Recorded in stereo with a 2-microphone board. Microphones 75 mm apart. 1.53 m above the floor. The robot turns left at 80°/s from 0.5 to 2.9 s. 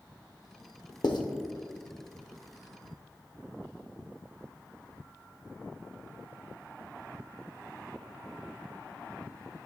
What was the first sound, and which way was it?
Writing, 80° left.